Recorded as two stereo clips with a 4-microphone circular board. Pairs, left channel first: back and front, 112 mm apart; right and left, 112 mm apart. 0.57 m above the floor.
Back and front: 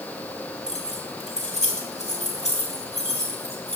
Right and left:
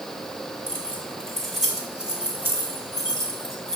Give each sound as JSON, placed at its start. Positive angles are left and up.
{"t": 0.7, "sound": "keys jangling", "azimuth_deg": -165, "distance_m": 3.5}